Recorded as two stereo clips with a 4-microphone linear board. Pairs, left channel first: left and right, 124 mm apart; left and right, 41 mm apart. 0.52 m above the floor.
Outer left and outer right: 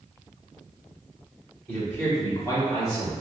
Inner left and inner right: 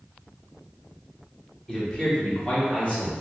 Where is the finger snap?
I don't hear a finger snap.